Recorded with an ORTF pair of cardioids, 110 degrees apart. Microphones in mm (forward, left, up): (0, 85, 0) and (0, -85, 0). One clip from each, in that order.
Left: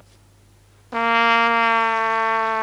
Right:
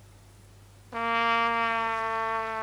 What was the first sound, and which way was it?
A trumpet, 45° left.